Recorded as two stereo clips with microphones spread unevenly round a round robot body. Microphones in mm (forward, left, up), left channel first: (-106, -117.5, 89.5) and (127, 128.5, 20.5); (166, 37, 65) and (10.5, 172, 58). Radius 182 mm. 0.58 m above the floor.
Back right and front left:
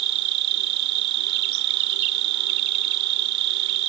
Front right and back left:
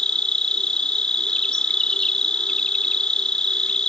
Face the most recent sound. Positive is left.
turn(degrees=45)